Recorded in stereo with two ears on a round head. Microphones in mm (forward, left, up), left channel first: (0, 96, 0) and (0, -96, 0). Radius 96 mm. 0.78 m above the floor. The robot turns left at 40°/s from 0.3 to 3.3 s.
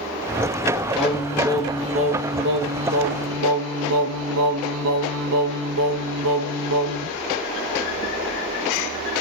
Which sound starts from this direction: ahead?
Singing, at 0.9 s.